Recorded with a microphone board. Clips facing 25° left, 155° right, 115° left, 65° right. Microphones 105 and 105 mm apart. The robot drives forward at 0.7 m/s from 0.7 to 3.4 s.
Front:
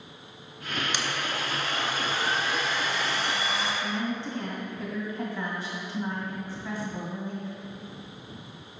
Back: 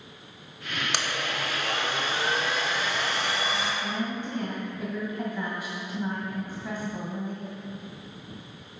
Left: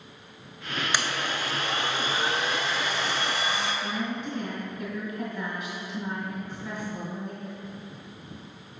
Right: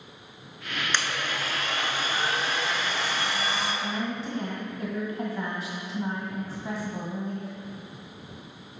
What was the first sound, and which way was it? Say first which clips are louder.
A blender: even, even; 170° right.